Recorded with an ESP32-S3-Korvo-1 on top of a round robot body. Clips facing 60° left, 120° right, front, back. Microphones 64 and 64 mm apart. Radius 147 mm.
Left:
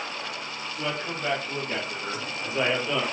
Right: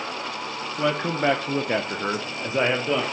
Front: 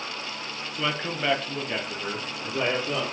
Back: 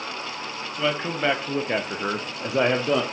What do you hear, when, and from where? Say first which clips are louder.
0.8 s a man speaking: right 8 dB, back 4 dB; 90° right, 1.3 m; by 3.0 s 160° left, 1.4 m